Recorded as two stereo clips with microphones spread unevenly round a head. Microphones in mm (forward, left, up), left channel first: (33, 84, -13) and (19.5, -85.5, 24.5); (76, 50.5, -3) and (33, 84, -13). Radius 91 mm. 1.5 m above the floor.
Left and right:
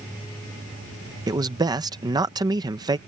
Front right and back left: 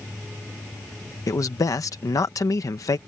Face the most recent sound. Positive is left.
turn(degrees=-30)